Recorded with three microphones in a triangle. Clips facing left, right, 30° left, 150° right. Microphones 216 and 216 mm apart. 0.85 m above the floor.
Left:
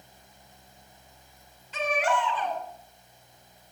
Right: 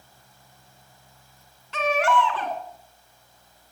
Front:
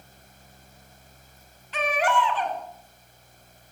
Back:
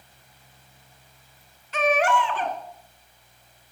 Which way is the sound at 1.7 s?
100° right.